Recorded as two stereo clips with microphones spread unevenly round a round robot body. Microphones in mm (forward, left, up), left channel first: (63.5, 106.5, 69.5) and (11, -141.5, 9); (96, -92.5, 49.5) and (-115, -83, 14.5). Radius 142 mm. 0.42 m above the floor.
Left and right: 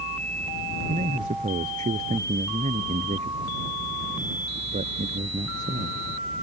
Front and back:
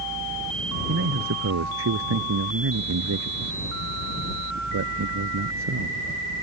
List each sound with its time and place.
0.9 s a man speaking: 170° right